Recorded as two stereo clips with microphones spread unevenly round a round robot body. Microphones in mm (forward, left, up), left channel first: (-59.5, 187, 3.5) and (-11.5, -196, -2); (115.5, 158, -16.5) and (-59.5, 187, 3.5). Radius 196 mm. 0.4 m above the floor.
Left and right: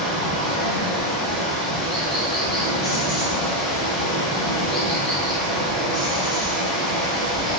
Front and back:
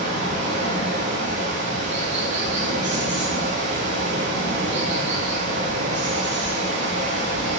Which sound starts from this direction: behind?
Running water, at 0.0 s.